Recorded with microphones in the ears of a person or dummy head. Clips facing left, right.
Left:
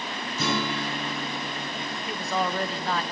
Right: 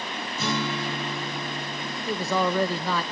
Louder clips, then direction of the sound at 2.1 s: Right 4 dB; 75° right (ahead or behind).